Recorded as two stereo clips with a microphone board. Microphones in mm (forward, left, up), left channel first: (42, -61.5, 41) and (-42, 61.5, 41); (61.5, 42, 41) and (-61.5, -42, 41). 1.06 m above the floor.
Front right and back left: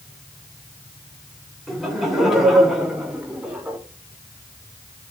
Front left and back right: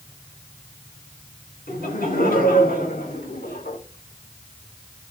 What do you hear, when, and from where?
1.7 s laughter: 35° left, 5.5 m; by 3.8 s 40° left, 4.5 m